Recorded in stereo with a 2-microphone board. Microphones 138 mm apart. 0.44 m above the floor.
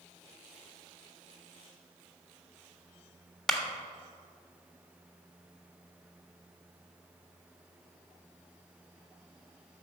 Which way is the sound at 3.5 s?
5° left (ahead or behind).